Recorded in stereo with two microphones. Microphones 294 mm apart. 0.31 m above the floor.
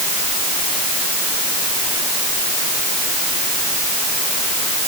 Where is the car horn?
I don't hear a car horn.